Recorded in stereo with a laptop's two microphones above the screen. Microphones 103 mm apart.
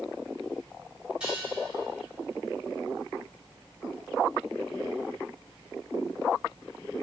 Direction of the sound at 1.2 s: 10° right (ahead or behind).